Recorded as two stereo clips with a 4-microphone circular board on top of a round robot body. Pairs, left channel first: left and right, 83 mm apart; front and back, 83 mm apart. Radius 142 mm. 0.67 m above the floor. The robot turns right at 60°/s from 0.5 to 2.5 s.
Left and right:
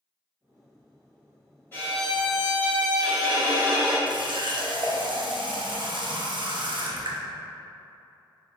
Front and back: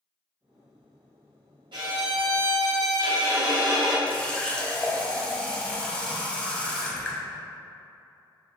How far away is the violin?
About 1.7 m.